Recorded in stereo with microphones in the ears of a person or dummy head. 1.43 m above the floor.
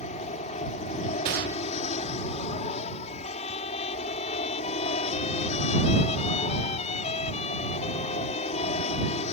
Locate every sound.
0.0 s an aircraft: 35° left (ahead or behind)
1.2 s a gunshot: 55° right (ahead or behind)
3.2 s a trumpet: 35° left (ahead or behind)